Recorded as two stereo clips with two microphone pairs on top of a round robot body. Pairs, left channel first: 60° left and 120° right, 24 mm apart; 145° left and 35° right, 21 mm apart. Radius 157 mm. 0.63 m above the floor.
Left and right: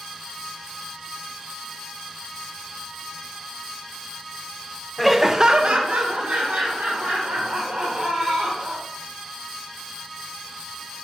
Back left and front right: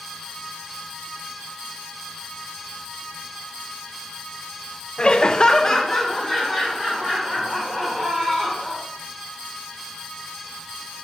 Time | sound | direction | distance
5.0 | laughter | 135° left | 0.6 m